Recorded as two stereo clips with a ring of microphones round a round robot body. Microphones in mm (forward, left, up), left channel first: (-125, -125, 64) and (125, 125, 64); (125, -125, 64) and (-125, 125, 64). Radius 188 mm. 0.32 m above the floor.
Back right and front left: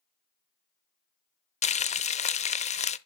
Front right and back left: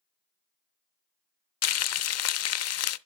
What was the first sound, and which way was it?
Frying, 70° right.